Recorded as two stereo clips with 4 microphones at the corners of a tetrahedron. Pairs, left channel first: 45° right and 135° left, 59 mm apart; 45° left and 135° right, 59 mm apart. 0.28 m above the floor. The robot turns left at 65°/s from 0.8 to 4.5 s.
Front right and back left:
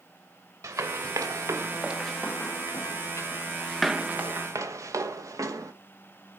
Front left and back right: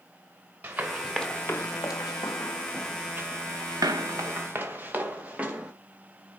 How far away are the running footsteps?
About 1.7 m.